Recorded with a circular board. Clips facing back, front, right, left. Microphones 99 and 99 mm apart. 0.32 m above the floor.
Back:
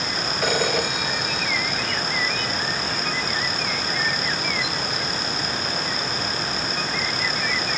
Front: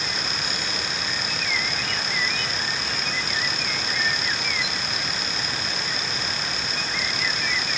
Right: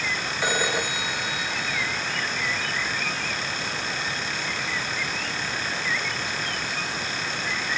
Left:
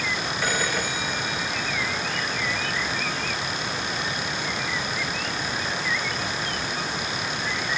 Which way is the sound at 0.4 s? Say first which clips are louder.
Back 9 dB, right 2 dB; 165° right.